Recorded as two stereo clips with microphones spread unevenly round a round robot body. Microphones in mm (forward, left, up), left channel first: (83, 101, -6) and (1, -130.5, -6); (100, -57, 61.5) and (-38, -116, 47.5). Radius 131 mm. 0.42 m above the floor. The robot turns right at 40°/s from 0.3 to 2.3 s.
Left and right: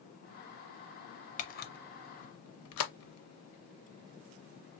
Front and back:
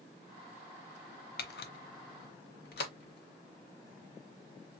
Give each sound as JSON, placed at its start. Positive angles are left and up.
{"t": 1.4, "sound": "a camera shutter", "azimuth_deg": 10, "distance_m": 0.6}